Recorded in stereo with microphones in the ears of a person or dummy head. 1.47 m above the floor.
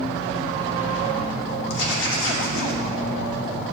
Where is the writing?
70° left (ahead or behind), 1.8 m.